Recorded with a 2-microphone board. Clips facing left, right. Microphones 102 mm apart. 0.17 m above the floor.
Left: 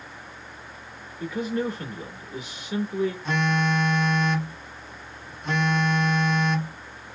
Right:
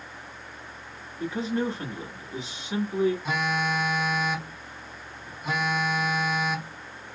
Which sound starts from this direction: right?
A man speaking, at 1.2 s.